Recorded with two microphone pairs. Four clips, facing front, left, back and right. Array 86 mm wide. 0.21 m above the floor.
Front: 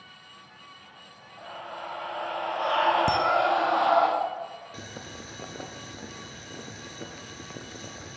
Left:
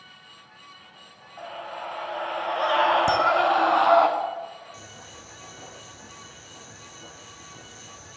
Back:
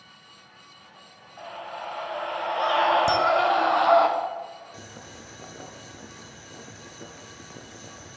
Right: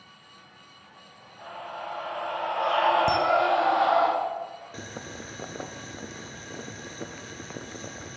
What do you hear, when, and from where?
1.4 s a scream: 110° left, 3.5 m
3.1 s a camera shutter: 15° left, 0.8 m
4.7 s boiling: 75° right, 0.7 m